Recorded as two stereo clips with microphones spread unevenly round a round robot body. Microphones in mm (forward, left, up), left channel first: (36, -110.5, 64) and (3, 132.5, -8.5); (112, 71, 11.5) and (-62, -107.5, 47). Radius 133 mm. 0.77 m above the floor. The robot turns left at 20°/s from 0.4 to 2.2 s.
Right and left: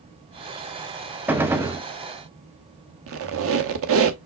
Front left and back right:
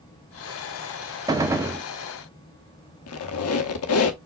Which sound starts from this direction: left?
A squeak, at 3.1 s.